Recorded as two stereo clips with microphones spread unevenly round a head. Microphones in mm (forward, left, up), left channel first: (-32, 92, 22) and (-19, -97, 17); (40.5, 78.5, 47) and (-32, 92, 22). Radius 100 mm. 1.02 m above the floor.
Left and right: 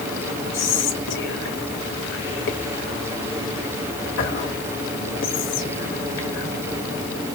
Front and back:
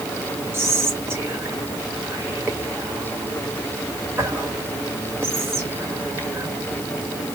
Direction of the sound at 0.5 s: 115° left.